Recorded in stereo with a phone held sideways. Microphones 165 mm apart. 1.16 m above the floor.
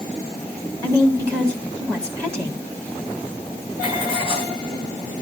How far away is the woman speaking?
About 3 m.